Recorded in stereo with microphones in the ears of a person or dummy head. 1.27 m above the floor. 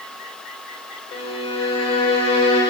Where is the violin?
25° left (ahead or behind), 6 m.